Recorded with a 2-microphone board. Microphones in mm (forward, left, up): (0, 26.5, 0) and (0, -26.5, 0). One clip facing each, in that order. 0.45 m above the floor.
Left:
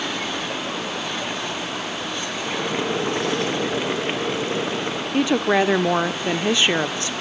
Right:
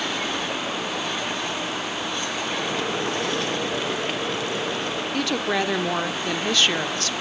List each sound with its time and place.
2.5 s boiling: 25° left (ahead or behind), 3 m
5.1 s a woman speaking: 20° left (ahead or behind), 1.0 m